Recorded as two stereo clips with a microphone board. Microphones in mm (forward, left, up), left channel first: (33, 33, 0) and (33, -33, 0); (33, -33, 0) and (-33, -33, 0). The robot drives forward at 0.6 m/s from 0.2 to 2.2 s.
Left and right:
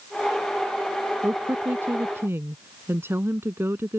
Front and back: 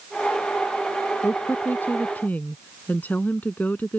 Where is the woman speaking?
40° right; by 4.0 s 55° right.